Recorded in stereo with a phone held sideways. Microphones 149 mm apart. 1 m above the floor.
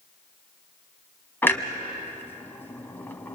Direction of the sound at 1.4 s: 15° left (ahead or behind).